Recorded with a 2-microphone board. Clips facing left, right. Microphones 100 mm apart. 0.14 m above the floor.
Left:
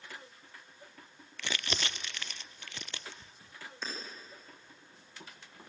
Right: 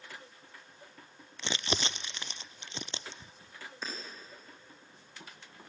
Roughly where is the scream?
No scream in this recording.